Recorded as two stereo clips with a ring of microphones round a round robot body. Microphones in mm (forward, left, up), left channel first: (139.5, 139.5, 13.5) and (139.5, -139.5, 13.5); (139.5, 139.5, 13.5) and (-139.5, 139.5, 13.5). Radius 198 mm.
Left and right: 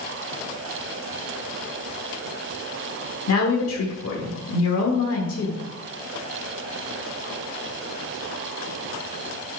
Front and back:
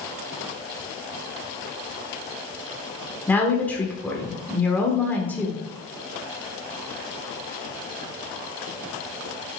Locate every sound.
3.3 s a woman speaking: 85° left, 1.2 m